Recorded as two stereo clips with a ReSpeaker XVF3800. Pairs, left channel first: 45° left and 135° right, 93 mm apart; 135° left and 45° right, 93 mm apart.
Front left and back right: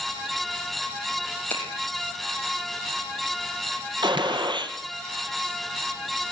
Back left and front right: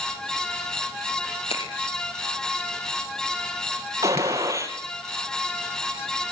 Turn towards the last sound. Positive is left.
turn(degrees=-100)